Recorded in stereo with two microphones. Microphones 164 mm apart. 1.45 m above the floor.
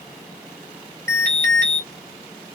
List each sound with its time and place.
1.1 s an alarm: 60° right (ahead or behind), 1.1 m